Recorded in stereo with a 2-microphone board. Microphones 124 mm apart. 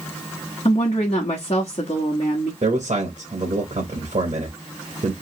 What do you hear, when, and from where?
0.7 s a woman speaking: 55° left (ahead or behind), 1.0 m
2.6 s a man speaking: 65° right (ahead or behind), 1.0 m